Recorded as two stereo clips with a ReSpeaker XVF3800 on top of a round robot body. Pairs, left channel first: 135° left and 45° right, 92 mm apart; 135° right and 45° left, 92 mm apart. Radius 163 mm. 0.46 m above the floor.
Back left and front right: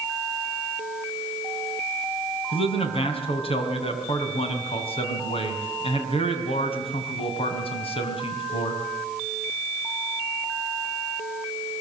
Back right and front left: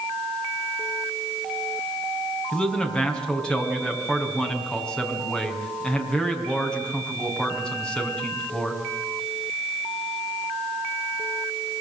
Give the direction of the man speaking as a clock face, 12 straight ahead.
7 o'clock.